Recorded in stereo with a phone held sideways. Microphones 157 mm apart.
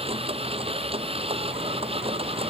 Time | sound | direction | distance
0.0 | a machine running | 40° right (ahead or behind) | ?